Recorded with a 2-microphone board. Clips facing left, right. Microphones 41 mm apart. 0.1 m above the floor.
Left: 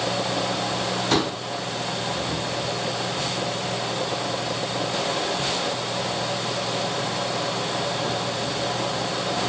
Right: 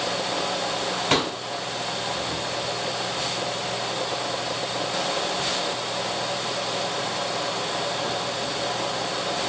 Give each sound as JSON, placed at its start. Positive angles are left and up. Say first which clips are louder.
{"t": 1.1, "sound": "a pop", "louder": "even", "side_deg": -55, "distance_m": 1.7}